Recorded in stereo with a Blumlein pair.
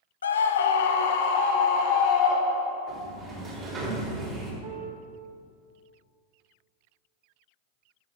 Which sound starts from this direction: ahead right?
A piano, at 4.6 s.